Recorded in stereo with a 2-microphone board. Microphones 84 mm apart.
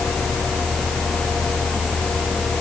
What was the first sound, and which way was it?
Only background noise.